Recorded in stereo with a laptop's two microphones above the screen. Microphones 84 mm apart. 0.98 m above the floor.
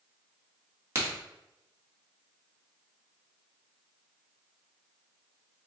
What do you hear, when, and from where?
0.9 s a crack: 30° right (ahead or behind), 1.7 m